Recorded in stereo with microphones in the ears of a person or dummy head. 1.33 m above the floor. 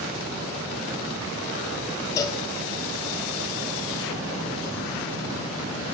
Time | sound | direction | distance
2.2 | a cowbell | 20° left (ahead or behind) | 2.5 m